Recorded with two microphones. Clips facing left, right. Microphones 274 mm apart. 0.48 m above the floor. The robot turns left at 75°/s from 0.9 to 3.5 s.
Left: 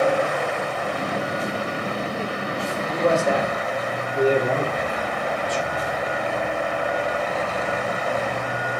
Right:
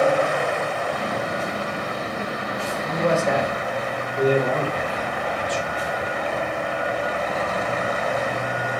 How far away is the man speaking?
About 1.3 m.